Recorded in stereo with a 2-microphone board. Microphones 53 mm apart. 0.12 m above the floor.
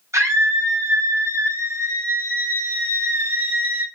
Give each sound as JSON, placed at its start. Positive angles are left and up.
{"t": 0.1, "sound": "a scream", "side_deg": -75, "distance_m": 4.5}